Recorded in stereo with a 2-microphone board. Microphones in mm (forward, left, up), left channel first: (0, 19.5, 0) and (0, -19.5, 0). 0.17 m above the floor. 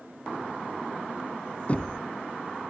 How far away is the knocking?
About 1.5 m.